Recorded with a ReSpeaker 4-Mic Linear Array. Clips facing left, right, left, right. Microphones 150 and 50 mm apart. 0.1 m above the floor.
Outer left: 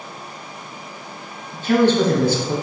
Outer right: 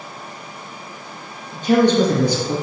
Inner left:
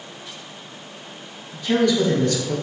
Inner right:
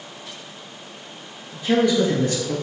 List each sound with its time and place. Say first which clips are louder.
1.5 s a man speaking: outer right 1 dB, even; 15° right (ahead or behind), 1.6 m